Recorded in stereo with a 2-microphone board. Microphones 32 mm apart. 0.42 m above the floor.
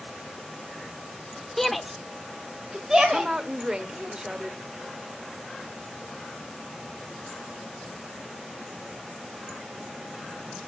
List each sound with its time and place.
1.6 s a shout: 10° left (ahead or behind), 0.9 m; by 4.1 s 20° right (ahead or behind), 2.5 m
3.1 s a woman speaking: 25° right (ahead or behind), 1.0 m